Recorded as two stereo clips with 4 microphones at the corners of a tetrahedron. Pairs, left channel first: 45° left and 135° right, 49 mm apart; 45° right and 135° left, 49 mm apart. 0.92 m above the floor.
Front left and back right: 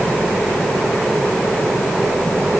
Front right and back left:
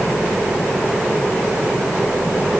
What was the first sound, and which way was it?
Only background noise.